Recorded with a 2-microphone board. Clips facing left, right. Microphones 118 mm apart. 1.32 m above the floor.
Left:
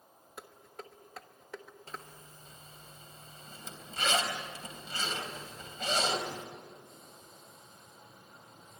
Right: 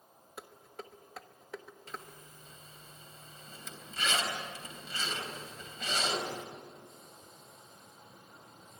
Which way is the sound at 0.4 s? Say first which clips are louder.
Right 1 dB; centre (ahead or behind).